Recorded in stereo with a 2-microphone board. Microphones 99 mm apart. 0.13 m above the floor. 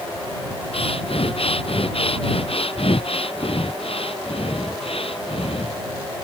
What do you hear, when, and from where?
0.7 s breathing: 70° left (ahead or behind)